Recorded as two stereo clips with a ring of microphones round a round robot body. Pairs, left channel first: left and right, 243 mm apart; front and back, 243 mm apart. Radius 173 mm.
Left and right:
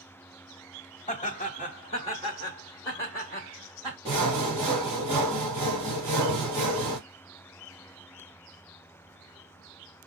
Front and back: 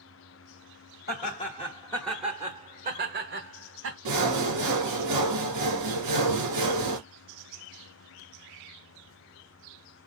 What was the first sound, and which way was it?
Laughter, 35° left.